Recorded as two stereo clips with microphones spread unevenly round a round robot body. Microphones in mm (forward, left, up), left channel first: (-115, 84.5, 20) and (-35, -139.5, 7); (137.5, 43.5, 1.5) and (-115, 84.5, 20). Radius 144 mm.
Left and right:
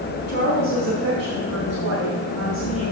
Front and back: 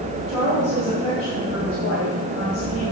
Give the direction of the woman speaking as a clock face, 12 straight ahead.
4 o'clock.